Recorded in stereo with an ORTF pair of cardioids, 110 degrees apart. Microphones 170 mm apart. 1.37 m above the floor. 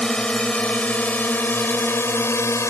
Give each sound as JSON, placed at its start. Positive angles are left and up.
{"t": 0.0, "sound": "a drone", "azimuth_deg": 5}